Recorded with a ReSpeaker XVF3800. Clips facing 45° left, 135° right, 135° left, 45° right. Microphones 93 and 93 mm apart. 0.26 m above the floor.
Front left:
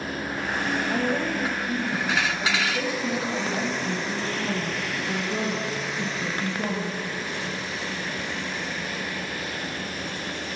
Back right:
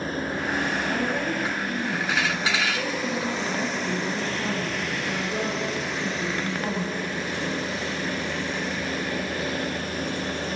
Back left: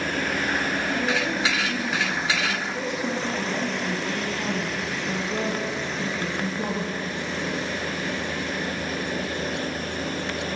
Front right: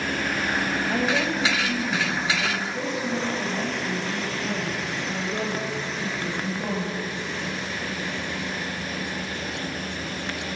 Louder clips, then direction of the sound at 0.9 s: Front left 1 dB, front right 3 dB; 30° right.